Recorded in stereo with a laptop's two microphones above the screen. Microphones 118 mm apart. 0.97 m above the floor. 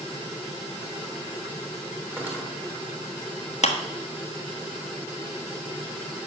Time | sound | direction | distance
2.2 | cutlery clinking | 15° right (ahead or behind) | 3 m
3.6 | a clap | 70° left (ahead or behind) | 1.4 m